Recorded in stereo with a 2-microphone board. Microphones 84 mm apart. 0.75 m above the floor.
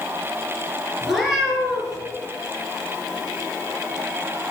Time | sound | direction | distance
1.0 | a cat meowing | centre (ahead or behind) | 2.5 m